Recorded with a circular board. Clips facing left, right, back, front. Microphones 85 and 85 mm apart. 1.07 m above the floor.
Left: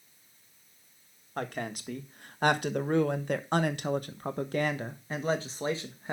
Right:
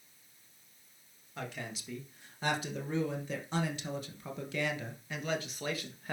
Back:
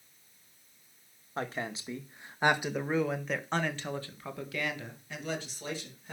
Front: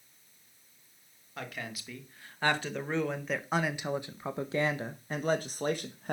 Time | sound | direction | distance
1.4 | a woman speaking | 125° left | 1.8 m